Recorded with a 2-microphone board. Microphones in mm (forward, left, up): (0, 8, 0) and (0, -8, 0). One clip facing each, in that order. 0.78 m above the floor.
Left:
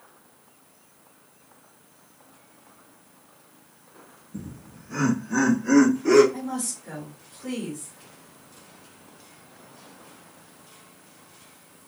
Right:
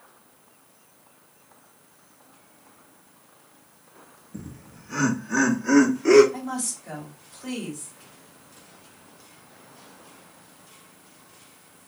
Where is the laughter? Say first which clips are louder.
Left 1 dB; 25° right (ahead or behind), 1.0 m; by 6.2 s 45° right (ahead or behind), 2.5 m.